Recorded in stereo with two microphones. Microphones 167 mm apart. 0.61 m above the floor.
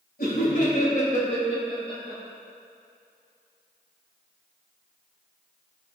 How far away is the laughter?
About 2.5 m.